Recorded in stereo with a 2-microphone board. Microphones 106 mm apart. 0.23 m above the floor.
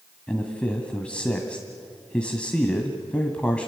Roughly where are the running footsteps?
I don't hear running footsteps.